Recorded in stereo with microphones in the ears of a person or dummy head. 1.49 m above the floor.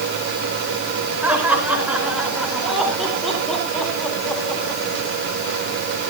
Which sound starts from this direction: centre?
Laughter, at 1.2 s.